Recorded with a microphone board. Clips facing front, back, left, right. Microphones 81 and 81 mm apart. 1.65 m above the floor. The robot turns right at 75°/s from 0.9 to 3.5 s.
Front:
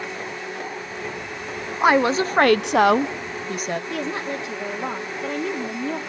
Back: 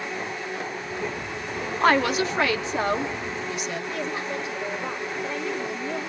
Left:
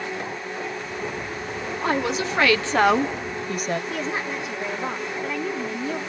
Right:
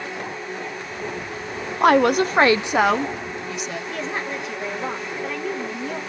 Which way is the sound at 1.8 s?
80° right.